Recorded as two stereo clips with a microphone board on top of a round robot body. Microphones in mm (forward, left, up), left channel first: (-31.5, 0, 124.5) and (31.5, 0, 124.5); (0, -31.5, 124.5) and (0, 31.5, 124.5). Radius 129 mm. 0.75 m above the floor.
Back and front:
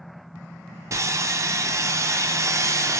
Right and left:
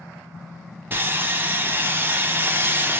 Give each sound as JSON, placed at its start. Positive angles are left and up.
{"t": 0.9, "sound": "sawing", "azimuth_deg": 35, "distance_m": 0.7}